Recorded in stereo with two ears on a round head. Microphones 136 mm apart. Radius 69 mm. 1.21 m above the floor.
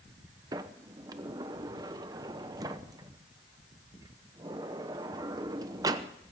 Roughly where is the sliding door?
Right.